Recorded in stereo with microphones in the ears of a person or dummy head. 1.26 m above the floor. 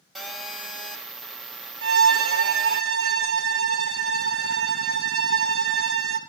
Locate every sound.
0.1 s a phone buzzing: centre (ahead or behind), 1.5 m
1.8 s a violin: 75° right (ahead or behind), 0.9 m